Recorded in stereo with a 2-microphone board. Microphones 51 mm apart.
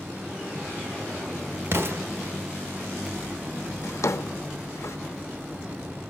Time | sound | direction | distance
1.7 | an explosion | 55° right (ahead or behind) | 1.2 m
3.8 | a drawer | 70° left (ahead or behind) | 0.6 m